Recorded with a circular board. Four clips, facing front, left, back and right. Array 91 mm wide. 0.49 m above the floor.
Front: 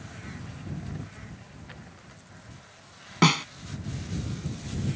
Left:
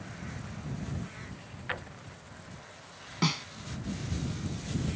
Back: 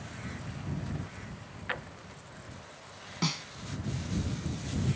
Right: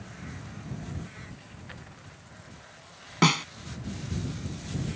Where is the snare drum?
40° right.